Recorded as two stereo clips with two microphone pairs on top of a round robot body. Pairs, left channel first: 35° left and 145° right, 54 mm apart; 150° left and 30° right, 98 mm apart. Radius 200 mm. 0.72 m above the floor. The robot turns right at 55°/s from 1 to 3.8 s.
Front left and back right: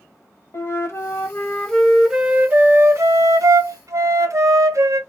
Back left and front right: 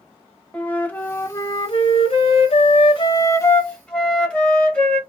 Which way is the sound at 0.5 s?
75° left.